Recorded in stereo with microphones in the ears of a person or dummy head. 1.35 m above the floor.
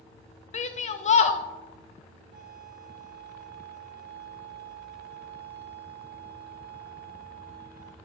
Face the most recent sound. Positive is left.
turn(degrees=-45)  # may be behind; listen again after turning